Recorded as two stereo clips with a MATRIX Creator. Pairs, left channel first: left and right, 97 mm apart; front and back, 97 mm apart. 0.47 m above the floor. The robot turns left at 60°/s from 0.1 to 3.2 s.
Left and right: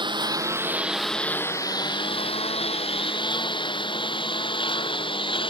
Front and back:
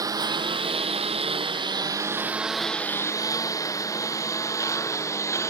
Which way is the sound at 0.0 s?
125° right.